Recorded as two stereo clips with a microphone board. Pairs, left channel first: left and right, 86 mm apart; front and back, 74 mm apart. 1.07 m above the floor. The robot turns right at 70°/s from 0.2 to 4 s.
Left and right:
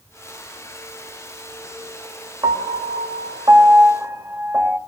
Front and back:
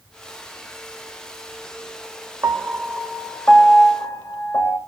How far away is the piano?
About 1.4 m.